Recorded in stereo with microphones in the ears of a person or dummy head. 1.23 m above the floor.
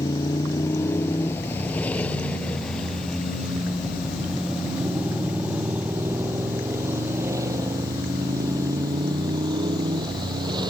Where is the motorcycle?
20° left (ahead or behind); by 10.7 s 25° right (ahead or behind).